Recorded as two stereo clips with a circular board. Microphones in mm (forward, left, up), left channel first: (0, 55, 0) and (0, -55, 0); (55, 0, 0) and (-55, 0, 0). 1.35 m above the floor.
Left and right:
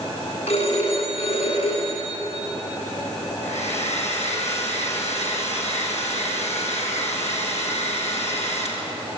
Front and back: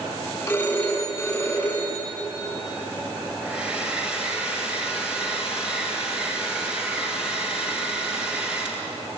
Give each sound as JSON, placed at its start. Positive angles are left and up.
{"t": 0.5, "sound": "a phone ringing", "azimuth_deg": 70, "distance_m": 10.0}
{"t": 3.4, "sound": "a hair dryer", "azimuth_deg": 95, "distance_m": 5.5}